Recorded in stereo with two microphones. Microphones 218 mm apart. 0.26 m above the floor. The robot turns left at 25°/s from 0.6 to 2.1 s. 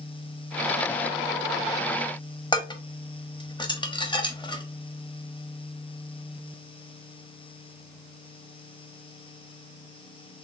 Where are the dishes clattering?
20° left (ahead or behind), 0.8 m.